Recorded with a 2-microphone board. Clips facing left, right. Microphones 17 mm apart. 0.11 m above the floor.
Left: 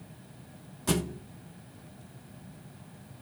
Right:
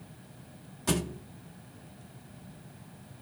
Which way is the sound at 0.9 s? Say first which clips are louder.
Left 1 dB; 10° right (ahead or behind).